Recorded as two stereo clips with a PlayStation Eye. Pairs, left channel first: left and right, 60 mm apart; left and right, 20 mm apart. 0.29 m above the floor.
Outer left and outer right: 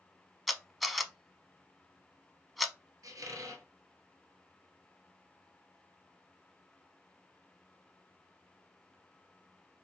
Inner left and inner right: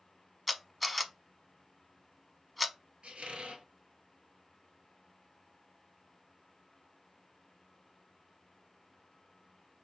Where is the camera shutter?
Centre (ahead or behind), 0.5 m.